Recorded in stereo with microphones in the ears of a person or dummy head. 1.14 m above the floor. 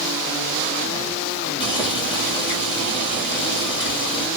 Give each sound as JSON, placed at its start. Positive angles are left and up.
{"t": 1.6, "sound": "boiling", "side_deg": 25, "distance_m": 1.6}